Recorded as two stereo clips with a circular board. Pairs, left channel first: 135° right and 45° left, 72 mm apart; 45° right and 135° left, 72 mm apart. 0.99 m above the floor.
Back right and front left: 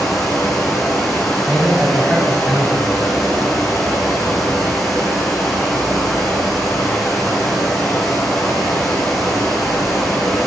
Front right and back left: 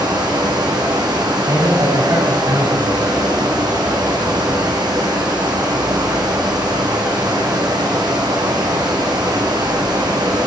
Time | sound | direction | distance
0.0 | running water | 135° left | 5 m
1.4 | a man speaking | 125° left | 7 m